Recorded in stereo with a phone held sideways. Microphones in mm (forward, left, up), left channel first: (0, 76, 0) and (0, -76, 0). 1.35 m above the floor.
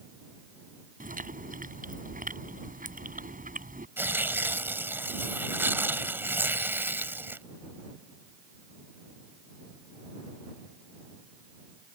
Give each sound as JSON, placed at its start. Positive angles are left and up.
{"t": 1.0, "sound": "chewing", "side_deg": -65}
{"t": 4.0, "sound": "tearing paper", "side_deg": -15}